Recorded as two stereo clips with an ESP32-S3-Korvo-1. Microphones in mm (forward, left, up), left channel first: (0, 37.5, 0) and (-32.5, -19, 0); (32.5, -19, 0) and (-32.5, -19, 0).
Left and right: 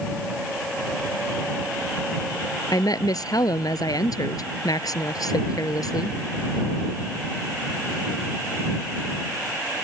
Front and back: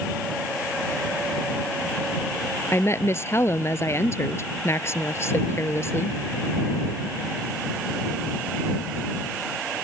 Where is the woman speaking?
45° left.